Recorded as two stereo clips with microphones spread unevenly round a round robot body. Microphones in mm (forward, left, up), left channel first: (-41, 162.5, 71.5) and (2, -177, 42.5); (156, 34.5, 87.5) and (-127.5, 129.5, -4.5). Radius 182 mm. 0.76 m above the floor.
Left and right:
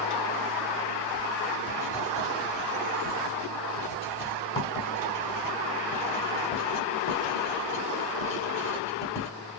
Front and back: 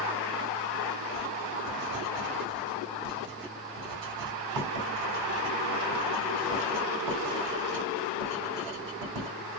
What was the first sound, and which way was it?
Writing, 170° left.